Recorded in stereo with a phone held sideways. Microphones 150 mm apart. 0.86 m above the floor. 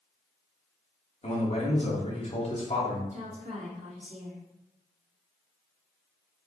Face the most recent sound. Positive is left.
turn(degrees=-50)  # may be behind; listen again after turning